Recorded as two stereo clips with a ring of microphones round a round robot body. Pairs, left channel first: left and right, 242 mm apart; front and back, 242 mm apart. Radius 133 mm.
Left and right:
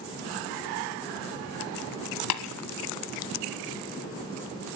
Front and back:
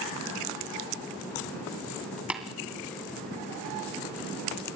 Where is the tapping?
95° left, 1.7 m.